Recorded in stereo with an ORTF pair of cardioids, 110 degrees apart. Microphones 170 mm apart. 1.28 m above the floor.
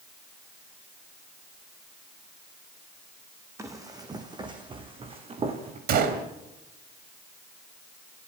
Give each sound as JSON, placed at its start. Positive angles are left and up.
{"t": 3.6, "sound": "running footsteps", "azimuth_deg": -20, "distance_m": 4.0}
{"t": 5.9, "sound": "a gunshot", "azimuth_deg": -65, "distance_m": 3.0}